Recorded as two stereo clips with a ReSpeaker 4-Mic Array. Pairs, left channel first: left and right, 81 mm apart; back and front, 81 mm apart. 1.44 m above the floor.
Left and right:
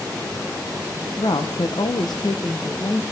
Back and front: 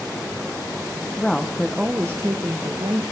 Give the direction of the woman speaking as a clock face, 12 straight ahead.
9 o'clock.